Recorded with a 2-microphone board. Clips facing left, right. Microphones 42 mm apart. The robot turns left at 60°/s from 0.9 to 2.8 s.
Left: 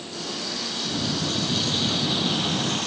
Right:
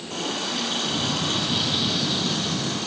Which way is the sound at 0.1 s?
115° right.